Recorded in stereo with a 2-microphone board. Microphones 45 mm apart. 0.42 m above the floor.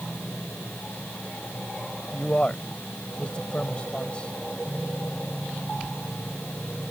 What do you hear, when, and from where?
2.1 s a man speaking: 25° left (ahead or behind)